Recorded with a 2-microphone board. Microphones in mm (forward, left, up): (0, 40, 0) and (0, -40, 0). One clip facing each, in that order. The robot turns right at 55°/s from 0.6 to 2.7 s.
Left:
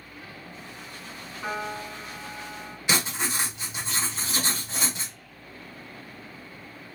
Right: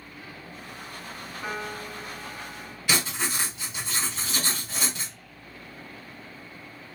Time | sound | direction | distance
1.4 | a piano | 5° right | 2 m
2.9 | writing | 20° left (ahead or behind) | 1.6 m